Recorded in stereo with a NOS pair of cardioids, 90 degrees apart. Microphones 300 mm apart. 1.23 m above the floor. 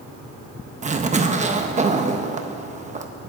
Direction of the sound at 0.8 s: 25° right.